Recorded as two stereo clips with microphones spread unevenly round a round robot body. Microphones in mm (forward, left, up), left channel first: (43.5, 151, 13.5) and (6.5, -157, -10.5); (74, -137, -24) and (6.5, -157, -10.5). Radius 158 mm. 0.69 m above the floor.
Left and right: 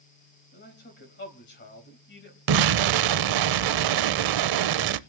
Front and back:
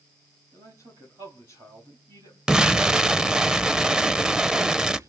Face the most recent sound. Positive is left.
turn(degrees=-90)